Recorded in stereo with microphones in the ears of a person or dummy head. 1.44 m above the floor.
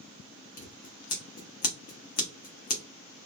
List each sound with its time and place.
0.6 s scissors: 45° left (ahead or behind), 0.7 m